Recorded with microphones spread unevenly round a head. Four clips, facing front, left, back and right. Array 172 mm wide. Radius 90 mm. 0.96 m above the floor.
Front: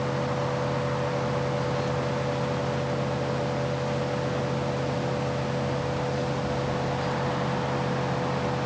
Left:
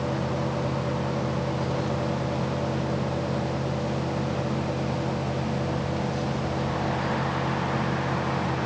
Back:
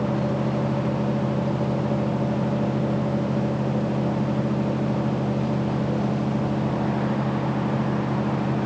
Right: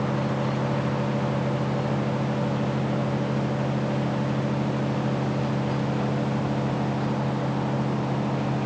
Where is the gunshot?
I don't hear a gunshot.